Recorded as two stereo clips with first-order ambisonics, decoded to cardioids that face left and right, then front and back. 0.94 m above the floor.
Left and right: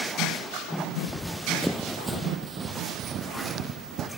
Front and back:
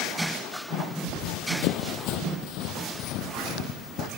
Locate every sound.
1.1 s running footsteps: 15° left, 1.8 m; by 4.1 s 45° right, 3 m